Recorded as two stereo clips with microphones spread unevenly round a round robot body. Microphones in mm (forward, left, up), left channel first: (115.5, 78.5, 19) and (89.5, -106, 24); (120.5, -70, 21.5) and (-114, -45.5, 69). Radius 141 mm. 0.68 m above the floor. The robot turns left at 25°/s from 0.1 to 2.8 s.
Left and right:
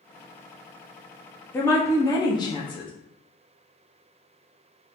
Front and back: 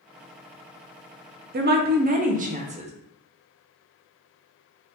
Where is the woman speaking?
145° left, 0.5 m; by 2.9 s 115° left, 0.5 m.